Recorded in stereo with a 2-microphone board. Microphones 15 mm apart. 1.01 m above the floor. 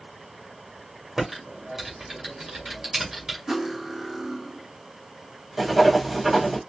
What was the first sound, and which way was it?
Typing on a keyboard, 40° right (ahead or behind).